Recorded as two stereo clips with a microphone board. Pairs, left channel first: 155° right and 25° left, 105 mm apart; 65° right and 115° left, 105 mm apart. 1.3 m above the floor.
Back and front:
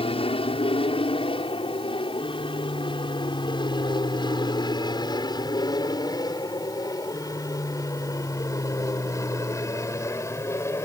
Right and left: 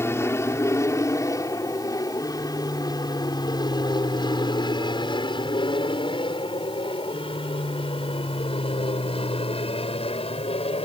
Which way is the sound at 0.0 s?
135° right.